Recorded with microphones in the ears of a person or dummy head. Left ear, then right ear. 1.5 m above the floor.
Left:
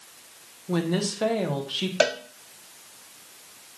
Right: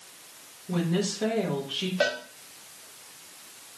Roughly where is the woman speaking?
Left.